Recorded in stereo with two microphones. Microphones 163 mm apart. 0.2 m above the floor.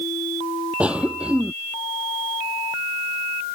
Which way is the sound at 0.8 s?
5° right (ahead or behind).